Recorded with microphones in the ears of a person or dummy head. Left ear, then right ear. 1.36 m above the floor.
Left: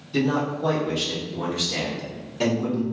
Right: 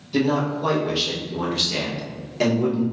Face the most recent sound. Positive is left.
turn(degrees=-5)  # may be behind; listen again after turning